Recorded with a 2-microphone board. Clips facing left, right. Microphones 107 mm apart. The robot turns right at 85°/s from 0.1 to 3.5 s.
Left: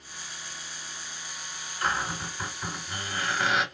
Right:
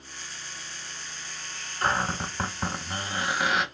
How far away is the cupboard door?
About 1.0 m.